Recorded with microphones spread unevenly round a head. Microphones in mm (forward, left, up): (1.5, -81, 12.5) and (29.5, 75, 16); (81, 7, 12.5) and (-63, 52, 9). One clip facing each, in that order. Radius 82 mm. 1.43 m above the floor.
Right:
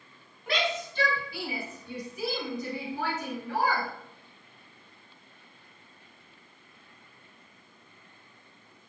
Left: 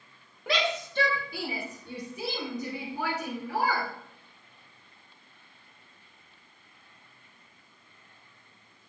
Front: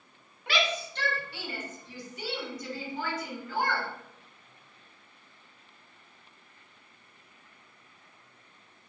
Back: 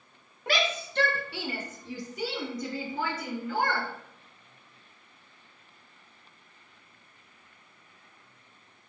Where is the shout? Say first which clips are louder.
Left 1 dB, back 1 dB; 110° left, 1.5 m; by 3.9 s 165° left, 3 m.